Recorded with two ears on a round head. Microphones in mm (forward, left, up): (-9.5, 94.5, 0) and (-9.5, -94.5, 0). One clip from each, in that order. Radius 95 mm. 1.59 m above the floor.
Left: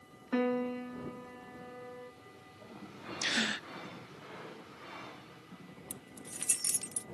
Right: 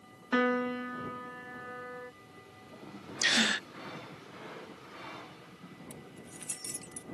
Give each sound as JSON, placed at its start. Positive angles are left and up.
{"t": 0.3, "sound": "a piano", "side_deg": -30}
{"t": 3.2, "sound": "a gasp", "side_deg": -20}
{"t": 5.9, "sound": "keys jangling", "side_deg": 35}